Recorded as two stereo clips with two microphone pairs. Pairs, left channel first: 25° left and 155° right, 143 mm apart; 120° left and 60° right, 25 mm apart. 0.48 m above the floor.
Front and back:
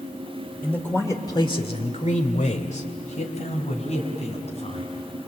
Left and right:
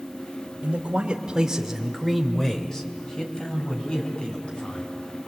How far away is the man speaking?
About 2 m.